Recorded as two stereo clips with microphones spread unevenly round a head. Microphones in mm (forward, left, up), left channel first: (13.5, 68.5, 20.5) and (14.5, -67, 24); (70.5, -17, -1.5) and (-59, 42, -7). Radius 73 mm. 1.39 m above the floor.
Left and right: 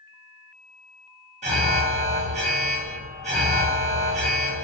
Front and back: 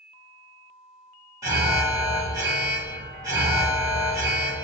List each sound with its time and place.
1.4 s an alarm: 130° right, 1.4 m